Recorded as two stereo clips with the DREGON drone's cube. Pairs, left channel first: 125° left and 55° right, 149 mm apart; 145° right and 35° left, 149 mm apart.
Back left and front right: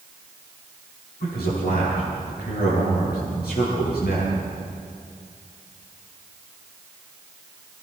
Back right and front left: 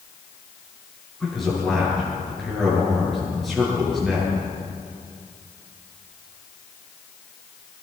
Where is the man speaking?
125° left, 10 m.